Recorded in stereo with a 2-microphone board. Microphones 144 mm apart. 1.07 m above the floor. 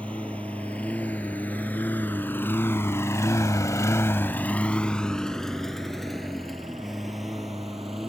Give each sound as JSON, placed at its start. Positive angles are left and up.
{"t": 0.0, "sound": "a lawn mower", "side_deg": 10}